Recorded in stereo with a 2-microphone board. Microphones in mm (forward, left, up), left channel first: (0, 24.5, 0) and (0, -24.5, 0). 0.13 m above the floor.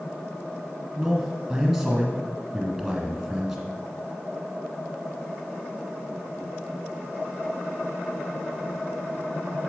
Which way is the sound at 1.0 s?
5° right (ahead or behind).